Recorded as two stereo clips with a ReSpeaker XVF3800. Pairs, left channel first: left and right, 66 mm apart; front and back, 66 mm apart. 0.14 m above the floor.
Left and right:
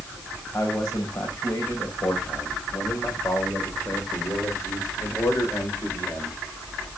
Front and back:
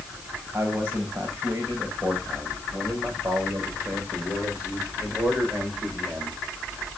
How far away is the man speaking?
About 7.5 m.